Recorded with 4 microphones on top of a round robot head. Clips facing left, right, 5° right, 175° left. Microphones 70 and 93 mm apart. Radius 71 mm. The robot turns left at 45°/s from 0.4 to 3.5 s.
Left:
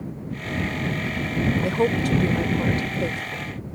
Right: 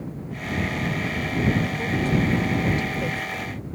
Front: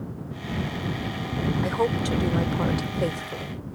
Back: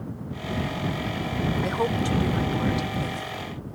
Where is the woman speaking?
85° left; by 3.6 s straight ahead.